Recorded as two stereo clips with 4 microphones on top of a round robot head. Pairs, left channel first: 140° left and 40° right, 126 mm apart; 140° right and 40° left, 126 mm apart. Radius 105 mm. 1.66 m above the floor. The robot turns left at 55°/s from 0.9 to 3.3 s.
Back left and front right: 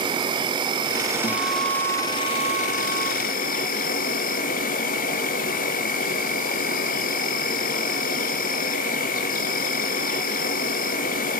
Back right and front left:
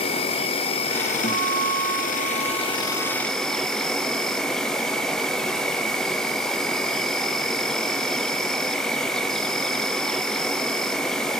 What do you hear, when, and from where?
0.0 s an insect: 95° right, 0.8 m; by 11.4 s 135° left, 0.8 m
1.2 s a guitar: 175° right, 1.2 m; by 3.1 s 85° left, 1.2 m